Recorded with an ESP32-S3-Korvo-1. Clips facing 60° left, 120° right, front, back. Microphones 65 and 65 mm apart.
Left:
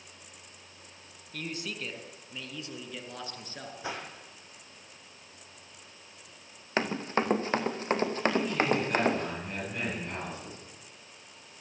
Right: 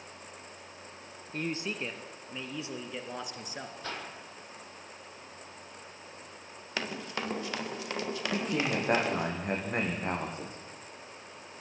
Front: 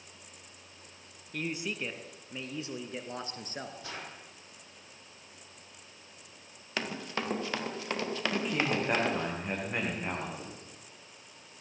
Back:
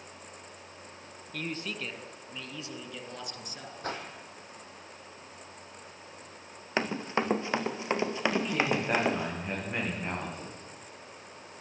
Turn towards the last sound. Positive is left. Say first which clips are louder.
# left 3 dB, back 2 dB
turn(degrees=-85)